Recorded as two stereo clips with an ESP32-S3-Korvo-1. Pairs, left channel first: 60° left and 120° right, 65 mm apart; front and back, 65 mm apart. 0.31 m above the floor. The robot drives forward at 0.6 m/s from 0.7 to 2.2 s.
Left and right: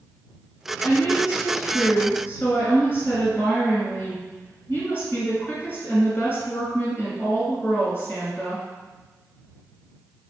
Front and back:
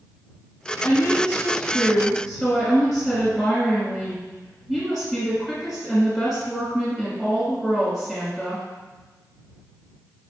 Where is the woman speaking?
50° left, 1.5 m; by 8.6 s 95° left, 1.3 m.